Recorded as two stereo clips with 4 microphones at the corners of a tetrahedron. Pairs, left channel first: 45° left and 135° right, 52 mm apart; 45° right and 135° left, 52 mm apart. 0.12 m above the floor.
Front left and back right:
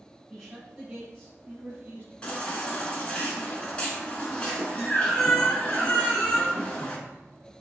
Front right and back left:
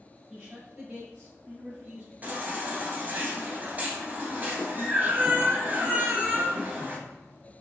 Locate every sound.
0.3 s a man speaking: 125° left, 1.8 m; by 2.1 s 175° right, 2.5 m
2.2 s a baby crying: 100° left, 1.3 m